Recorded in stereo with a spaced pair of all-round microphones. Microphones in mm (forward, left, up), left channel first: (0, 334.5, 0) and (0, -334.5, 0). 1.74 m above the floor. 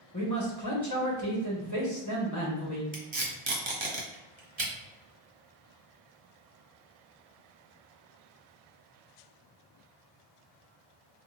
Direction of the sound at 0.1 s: 25° left (ahead or behind).